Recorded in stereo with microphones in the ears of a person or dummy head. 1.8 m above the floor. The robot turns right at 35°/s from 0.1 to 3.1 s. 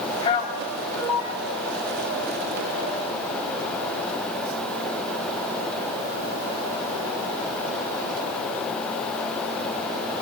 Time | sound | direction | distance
0.2 | a man speaking | 35° left (ahead or behind) | 3.5 m